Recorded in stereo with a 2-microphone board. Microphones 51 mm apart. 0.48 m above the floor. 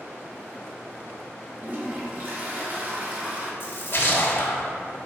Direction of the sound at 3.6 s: 45° left (ahead or behind).